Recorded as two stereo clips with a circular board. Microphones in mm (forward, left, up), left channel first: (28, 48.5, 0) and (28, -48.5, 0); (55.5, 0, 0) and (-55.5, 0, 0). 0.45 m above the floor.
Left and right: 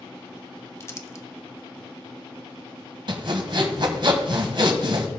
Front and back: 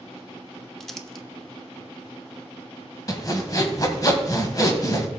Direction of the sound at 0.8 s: 85° left.